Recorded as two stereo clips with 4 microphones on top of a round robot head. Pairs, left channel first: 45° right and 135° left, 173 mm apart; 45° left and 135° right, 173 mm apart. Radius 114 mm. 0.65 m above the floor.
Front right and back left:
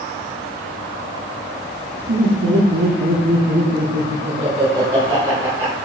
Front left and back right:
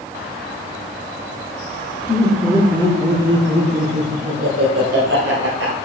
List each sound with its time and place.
2.1 s laughter: 135° left, 2 m; by 5.8 s 145° right, 2.5 m